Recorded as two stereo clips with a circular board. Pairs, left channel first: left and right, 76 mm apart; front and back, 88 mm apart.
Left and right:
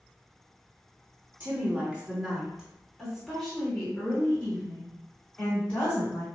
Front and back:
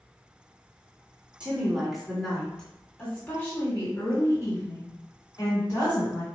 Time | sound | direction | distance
1.4 | a woman speaking | 120° right | 1.4 m